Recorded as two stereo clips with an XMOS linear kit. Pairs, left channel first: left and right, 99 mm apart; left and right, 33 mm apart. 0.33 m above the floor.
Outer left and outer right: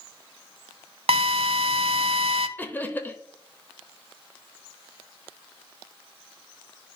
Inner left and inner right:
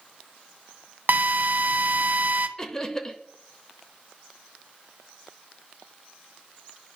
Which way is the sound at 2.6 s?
20° left (ahead or behind).